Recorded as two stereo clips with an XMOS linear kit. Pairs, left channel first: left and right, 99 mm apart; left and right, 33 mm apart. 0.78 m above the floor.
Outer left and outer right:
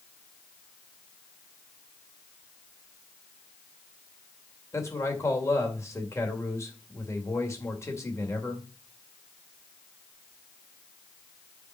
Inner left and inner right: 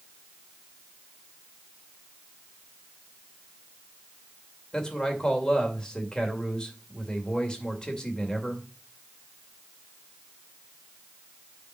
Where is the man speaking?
25° left (ahead or behind), 2.5 m.